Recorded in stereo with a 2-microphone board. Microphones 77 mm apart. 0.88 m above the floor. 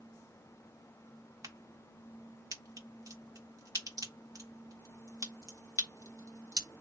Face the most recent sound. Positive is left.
turn(degrees=-50)  # may be behind; listen again after turning